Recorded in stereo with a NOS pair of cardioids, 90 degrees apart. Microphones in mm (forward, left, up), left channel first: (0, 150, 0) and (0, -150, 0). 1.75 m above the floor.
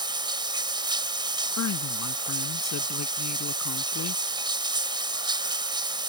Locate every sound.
0.0 s running water: 15° right
1.6 s a woman speaking: 60° left